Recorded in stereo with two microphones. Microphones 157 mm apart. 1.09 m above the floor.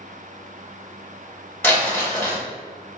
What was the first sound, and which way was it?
Crumpling, 15° left (ahead or behind).